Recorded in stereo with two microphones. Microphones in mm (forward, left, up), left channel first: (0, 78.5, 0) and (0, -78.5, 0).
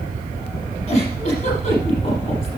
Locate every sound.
0.9 s a giggle: 35° left (ahead or behind), 5 m